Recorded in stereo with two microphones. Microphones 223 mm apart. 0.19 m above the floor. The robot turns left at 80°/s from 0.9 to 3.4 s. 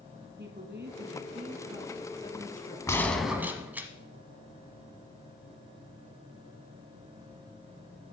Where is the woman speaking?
95° right, 1.7 m; by 2.8 s 115° left, 1.7 m.